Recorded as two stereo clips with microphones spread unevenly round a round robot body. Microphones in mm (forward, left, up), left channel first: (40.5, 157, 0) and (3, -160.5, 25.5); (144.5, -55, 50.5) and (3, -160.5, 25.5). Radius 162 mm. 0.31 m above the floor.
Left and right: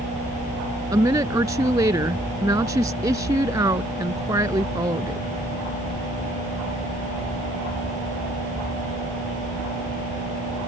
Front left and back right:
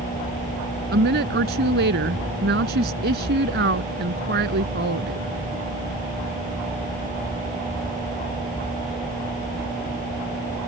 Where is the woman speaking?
175° right.